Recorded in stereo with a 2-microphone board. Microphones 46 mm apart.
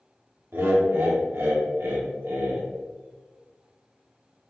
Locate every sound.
0.5 s laughter: 60° right (ahead or behind), 1.0 m